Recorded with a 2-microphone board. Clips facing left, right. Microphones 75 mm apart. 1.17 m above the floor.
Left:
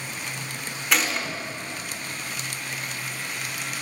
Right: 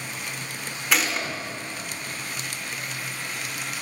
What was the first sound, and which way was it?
A gunshot, centre (ahead or behind).